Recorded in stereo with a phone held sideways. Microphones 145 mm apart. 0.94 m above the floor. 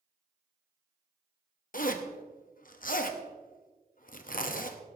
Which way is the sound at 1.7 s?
65° left (ahead or behind).